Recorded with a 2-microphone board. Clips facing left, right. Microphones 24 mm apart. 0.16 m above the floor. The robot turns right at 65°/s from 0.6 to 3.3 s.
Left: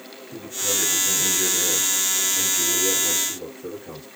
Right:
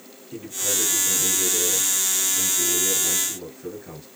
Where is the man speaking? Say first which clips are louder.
Left 1 dB; straight ahead, 2.5 m; by 4.1 s 175° left, 2.5 m.